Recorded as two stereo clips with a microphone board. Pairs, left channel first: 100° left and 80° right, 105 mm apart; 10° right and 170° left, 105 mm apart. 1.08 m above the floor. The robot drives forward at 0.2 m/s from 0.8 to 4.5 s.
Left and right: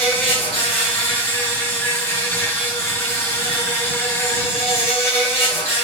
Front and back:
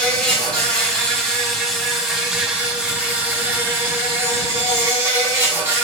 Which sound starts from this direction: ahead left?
An insect, at 0.0 s.